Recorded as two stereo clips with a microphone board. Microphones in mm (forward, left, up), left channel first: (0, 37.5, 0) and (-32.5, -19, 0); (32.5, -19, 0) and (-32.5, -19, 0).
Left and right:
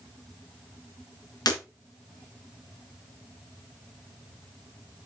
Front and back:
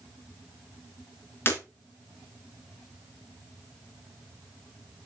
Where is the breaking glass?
55° left, 2 m.